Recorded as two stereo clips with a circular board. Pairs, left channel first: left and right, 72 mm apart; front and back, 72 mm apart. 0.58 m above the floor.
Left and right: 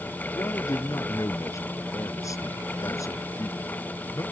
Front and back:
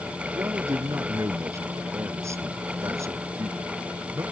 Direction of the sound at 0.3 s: 135° left.